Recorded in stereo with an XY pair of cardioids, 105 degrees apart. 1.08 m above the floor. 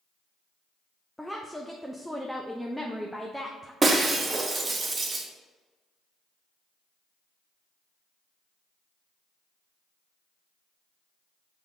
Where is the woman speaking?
Straight ahead, 0.6 m.